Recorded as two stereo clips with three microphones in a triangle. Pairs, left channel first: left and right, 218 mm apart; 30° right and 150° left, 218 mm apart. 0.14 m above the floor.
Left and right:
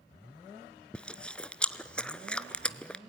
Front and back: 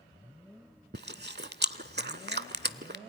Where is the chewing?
175° left, 0.5 m.